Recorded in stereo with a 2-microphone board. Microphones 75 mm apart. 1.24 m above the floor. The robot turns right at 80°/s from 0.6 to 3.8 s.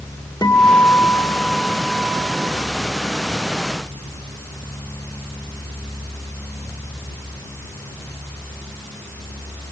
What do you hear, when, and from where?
0.4 s a guitar: 105° left, 2 m; by 2.5 s 100° right, 2 m